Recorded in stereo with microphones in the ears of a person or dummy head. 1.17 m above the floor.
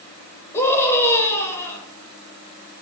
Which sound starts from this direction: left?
A scream, at 0.5 s.